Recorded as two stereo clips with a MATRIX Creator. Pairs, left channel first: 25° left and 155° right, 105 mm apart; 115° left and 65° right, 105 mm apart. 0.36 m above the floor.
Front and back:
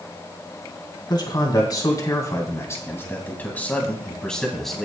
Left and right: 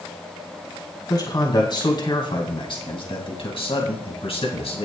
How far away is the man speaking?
About 3 m.